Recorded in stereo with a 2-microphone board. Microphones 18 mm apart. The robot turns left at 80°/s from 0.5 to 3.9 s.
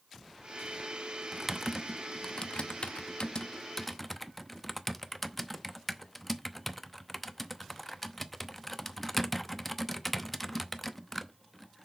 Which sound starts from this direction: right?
Typing on a keyboard, at 1.3 s.